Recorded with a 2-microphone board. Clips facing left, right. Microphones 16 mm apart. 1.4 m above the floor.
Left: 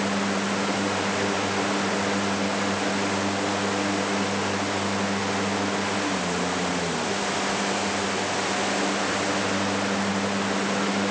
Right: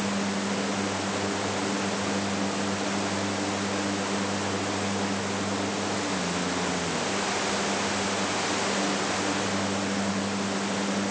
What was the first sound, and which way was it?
Only background noise.